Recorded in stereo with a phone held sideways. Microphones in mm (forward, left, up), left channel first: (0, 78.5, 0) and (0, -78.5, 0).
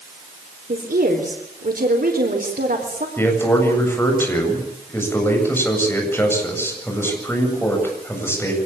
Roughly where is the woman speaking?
Right.